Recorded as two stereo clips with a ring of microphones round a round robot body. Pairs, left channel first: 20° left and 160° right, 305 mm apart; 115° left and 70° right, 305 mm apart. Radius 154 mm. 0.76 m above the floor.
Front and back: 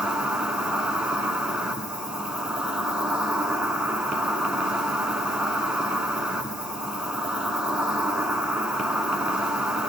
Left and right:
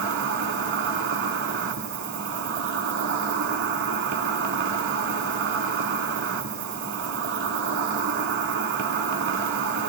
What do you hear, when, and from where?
0.0 s an insect: 70° right, 0.8 m